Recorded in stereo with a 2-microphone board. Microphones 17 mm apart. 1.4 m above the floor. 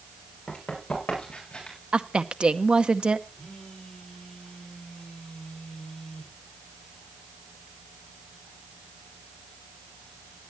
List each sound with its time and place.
0.5 s running footsteps: 50° left (ahead or behind), 10 m; by 1.8 s 60° left (ahead or behind), 9.5 m
1.9 s a woman speaking: 75° right (ahead or behind), 0.8 m
3.4 s a phone buzzing: 45° left (ahead or behind), 5.5 m